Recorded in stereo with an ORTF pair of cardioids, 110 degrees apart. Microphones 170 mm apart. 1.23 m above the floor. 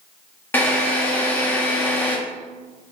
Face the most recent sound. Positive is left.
turn(degrees=10)